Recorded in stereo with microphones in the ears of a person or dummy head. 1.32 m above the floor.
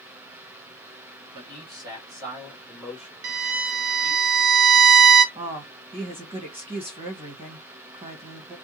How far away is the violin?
About 0.8 m.